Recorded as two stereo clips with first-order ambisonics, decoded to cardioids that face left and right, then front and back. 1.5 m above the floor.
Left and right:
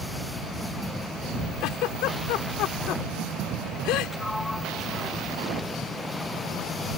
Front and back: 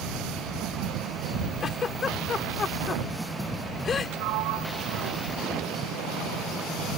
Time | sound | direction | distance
1.6 | a giggle | 65° left | ?
4.1 | a sliding door | 175° left | ?